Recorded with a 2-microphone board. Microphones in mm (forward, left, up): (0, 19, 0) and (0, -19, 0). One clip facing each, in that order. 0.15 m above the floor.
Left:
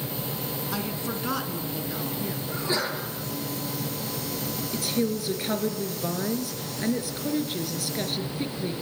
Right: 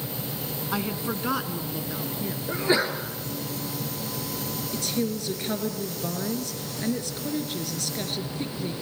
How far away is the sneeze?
About 2.5 m.